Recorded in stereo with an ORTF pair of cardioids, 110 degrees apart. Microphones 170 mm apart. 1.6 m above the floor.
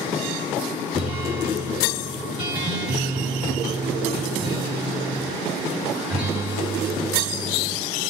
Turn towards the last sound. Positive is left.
turn(degrees=-30)